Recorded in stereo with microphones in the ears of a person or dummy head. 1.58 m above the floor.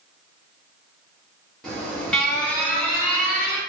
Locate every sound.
1.6 s an alarm: 5° left (ahead or behind), 0.9 m